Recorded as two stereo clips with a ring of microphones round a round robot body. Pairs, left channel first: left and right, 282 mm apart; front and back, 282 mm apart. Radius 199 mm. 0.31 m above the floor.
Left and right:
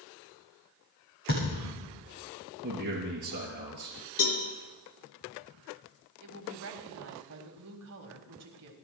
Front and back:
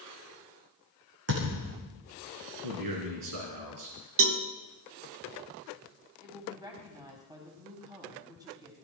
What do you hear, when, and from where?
1.3 s a thud: 145° left, 8 m
2.6 s a man speaking: 155° right, 3.5 m
4.2 s a cowbell: 135° left, 1.8 m
6.2 s a woman speaking: 105° right, 2 m